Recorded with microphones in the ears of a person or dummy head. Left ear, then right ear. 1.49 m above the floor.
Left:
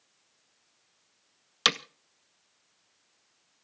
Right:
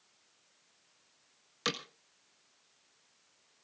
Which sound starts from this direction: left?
Hammering, at 1.6 s.